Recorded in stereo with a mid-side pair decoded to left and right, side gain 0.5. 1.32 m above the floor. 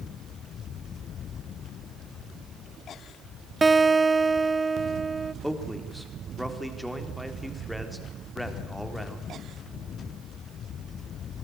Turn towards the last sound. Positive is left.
turn(degrees=0)